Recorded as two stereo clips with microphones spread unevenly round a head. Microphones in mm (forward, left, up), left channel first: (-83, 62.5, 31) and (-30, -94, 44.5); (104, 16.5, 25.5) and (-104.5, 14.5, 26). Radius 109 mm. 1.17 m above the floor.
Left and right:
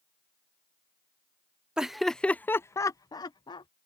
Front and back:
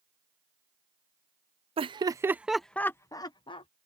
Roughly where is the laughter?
Behind.